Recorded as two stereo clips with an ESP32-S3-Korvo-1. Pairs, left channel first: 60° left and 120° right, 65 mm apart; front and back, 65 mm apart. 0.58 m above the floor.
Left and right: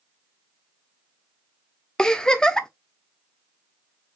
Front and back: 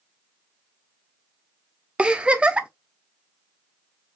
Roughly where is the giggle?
Behind left.